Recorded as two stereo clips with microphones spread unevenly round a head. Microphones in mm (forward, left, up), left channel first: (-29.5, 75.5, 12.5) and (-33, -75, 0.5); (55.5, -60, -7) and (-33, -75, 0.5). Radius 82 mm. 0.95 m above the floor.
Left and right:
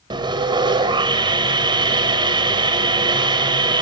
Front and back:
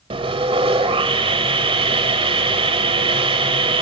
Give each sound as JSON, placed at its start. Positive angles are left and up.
{"t": 0.1, "sound": "sawing", "azimuth_deg": -155, "distance_m": 2.5}